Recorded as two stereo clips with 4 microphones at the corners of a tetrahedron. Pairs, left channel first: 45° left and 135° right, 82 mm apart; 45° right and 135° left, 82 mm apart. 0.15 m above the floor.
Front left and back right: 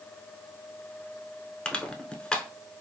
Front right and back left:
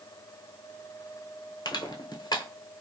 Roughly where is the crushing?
Ahead right.